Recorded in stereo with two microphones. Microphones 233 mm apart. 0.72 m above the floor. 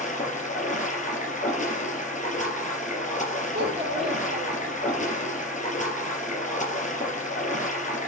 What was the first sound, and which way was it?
Running water, 35° left (ahead or behind).